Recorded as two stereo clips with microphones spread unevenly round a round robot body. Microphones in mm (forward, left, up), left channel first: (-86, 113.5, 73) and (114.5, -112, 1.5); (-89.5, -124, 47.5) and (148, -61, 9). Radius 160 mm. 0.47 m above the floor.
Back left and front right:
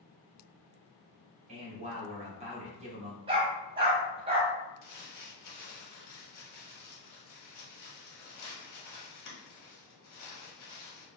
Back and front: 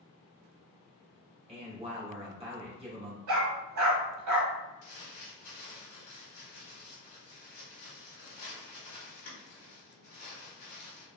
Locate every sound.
1.5 s a man speaking: 20° right, 1.2 m
3.3 s a dog barking: 25° left, 0.8 m
4.8 s crumpling: 170° left, 1.1 m